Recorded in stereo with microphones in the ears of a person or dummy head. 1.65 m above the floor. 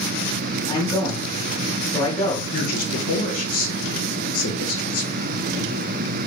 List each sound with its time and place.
0.7 s a man speaking: 15° left (ahead or behind), 1.8 m
2.5 s a man speaking: 55° left (ahead or behind), 1.3 m